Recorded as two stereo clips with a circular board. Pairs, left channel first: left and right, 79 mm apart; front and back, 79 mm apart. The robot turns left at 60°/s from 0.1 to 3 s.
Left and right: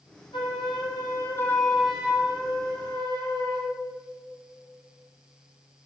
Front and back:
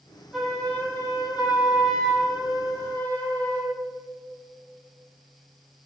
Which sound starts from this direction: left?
A flute, at 0.3 s.